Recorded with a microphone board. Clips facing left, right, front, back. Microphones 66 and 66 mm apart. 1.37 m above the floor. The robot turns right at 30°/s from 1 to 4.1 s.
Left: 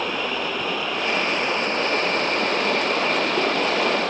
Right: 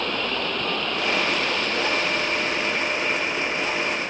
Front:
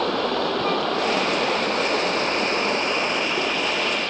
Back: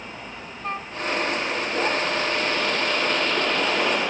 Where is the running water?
5° left; by 4.1 s 100° left.